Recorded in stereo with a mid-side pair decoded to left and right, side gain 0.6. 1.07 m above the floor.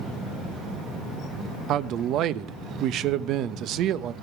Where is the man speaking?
60° right, 0.8 m.